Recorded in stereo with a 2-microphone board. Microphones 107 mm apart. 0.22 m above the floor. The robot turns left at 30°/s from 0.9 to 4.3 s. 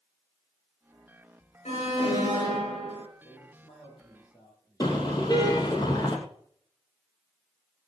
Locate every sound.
1.6 s an alarm: 100° left, 7 m; by 3.0 s 60° left, 7 m
3.2 s a man speaking: 65° left, 7.5 m; by 5.8 s 35° left, 7.5 m
4.8 s a car horn: 40° left (ahead or behind), 3.5 m